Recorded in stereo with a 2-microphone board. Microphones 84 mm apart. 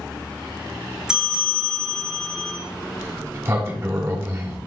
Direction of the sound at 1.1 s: 10° right (ahead or behind).